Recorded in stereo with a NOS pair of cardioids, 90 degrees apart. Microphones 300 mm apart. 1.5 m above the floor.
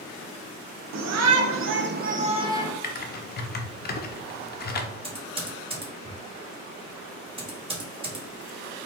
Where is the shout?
70° right, 1.0 m; by 2.7 s 5° right, 1.0 m.